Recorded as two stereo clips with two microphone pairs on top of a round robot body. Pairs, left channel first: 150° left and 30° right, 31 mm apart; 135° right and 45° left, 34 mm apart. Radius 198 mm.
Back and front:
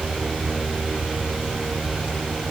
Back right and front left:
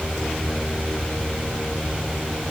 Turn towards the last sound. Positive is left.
No sound to turn to.